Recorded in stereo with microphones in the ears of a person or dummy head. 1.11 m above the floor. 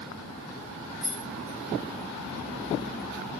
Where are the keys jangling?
85° right, 2.5 m.